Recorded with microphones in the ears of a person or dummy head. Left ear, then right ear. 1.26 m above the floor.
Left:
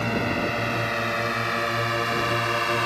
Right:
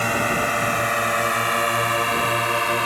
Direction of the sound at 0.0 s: 45° right (ahead or behind).